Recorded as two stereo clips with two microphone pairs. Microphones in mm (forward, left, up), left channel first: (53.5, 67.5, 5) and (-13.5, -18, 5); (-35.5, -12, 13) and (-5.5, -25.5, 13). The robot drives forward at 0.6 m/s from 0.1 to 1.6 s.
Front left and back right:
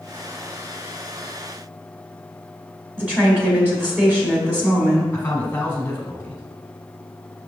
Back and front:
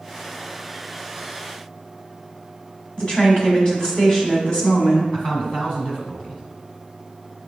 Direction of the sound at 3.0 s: 170° left.